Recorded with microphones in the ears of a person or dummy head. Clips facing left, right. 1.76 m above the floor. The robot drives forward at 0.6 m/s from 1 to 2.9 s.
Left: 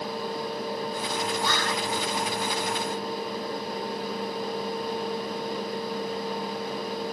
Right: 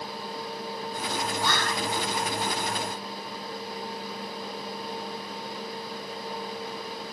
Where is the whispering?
60° right (ahead or behind), 0.5 m; by 1.9 s 40° right (ahead or behind), 0.7 m.